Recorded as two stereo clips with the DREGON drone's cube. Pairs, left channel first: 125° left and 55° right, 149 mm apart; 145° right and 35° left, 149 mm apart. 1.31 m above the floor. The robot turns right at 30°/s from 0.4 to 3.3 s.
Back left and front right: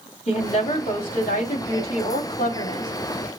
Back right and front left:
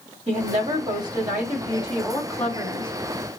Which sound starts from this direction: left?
A woman speaking, at 0.3 s.